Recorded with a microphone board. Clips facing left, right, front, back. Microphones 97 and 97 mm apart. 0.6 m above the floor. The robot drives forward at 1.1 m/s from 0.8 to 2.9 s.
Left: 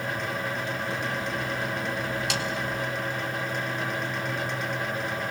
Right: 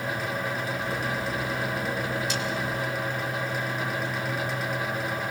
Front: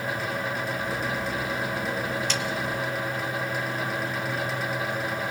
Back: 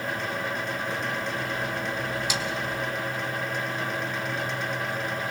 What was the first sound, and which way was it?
A snare drum, 100° left.